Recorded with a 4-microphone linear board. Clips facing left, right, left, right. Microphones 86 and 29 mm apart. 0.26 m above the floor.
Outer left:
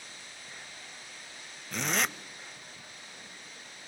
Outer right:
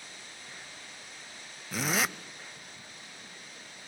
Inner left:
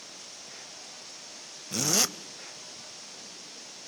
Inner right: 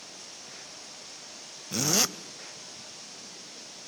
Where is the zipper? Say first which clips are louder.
Outer right 1 dB, inner right 1 dB; 5° right (ahead or behind), 0.6 m.